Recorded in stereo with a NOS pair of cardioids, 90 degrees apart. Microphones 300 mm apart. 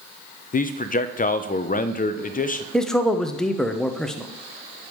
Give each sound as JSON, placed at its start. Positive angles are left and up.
{"t": 0.5, "sound": "a man speaking", "azimuth_deg": 30, "distance_m": 0.6}
{"t": 2.7, "sound": "a man speaking", "azimuth_deg": 0, "distance_m": 0.8}